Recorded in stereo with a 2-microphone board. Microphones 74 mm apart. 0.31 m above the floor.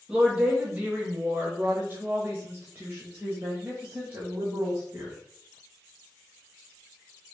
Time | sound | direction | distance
0.1 | a woman speaking | 15° right (ahead or behind) | 1.4 m